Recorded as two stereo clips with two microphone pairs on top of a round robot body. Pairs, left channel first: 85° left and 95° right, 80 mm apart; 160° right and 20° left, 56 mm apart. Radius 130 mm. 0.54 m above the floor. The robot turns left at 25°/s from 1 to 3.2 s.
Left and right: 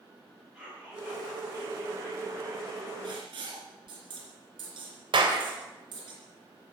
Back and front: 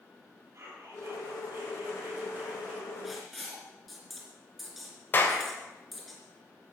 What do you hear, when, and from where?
0.5 s whispering: 20° right, 7 m; by 2.9 s 70° right, 7 m
3.0 s writing: 65° right, 3 m; by 6.1 s 70° right, 3 m
5.1 s a clap: 110° right, 2.5 m